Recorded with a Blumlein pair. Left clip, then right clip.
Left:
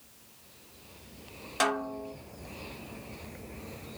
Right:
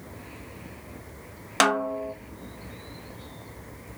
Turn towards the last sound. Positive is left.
turn(degrees=-60)